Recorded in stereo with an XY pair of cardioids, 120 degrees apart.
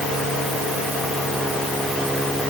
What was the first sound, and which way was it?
Only background noise.